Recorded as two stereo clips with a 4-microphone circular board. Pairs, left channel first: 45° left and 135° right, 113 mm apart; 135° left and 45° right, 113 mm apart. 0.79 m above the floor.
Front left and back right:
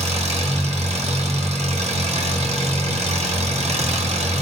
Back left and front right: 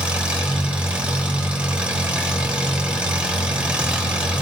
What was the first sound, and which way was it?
An engine running, 125° right.